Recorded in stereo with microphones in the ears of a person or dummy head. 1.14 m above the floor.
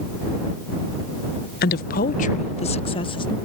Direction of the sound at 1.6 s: 50° left (ahead or behind).